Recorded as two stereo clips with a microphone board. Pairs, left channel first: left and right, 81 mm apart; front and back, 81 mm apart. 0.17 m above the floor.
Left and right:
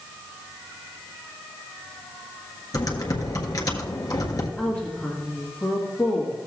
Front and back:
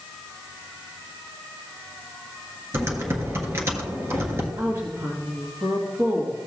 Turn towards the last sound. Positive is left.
turn(degrees=160)